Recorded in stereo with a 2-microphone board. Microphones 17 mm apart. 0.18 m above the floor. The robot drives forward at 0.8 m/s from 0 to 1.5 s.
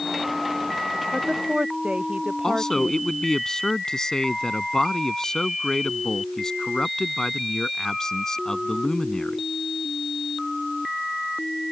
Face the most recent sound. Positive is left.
turn(degrees=40)  # may be behind; listen again after turning